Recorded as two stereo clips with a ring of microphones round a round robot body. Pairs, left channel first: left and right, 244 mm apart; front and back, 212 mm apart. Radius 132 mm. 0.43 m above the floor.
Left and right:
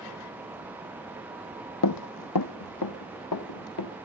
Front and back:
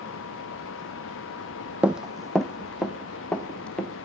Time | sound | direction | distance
1.8 | running footsteps | 95° left | 0.8 m